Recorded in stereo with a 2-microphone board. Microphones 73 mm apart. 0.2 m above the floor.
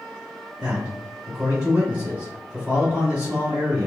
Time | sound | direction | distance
0.6 | a man speaking | 25° right (ahead or behind) | 1.3 m